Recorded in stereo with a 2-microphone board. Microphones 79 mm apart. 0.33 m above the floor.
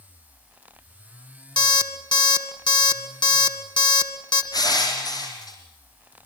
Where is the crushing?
55° left (ahead or behind), 4.5 m.